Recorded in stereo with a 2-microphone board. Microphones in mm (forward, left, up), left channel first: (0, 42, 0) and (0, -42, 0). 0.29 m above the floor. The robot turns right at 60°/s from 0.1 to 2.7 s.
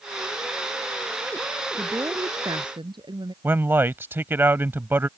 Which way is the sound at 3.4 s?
25° right (ahead or behind).